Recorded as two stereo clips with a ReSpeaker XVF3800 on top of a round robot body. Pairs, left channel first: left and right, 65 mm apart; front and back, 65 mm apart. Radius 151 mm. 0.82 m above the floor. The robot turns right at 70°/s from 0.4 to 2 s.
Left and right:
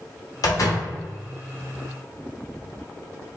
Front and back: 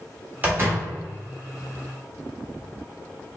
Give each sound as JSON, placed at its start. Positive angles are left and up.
{"t": 0.4, "sound": "a door slam", "azimuth_deg": 115, "distance_m": 1.4}